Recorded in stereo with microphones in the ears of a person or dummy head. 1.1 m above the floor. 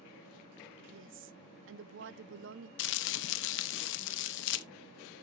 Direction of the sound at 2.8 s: 70° left (ahead or behind).